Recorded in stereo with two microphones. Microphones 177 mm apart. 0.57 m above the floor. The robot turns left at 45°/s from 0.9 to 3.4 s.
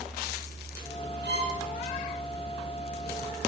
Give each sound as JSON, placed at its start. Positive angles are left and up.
{"t": 1.2, "sound": "a violin", "side_deg": -80, "distance_m": 9.5}